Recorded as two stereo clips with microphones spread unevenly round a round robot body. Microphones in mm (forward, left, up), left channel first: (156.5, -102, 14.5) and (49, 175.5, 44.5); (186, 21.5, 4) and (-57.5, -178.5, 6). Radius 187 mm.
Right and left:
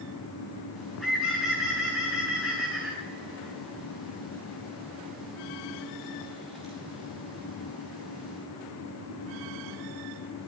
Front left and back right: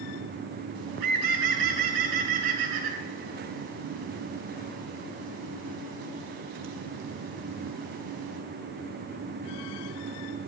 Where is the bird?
155° right, 4 m.